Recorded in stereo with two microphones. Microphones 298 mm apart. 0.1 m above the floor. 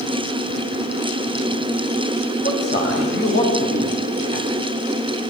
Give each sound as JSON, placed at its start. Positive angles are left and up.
{"t": 2.4, "sound": "a man speaking", "side_deg": 35, "distance_m": 9.0}